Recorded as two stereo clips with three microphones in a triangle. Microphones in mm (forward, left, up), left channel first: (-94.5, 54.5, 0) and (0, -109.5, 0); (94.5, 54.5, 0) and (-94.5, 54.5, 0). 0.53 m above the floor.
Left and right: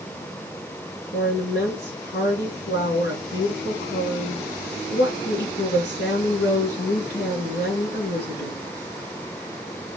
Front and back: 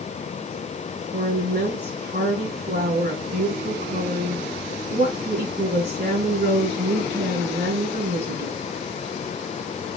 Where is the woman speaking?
145° left, 6 m.